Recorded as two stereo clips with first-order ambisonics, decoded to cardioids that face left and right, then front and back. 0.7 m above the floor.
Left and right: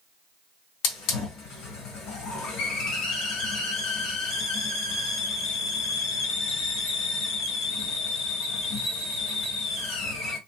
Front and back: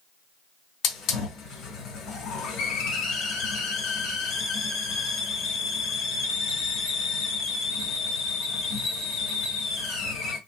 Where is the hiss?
55° left, 1.5 m.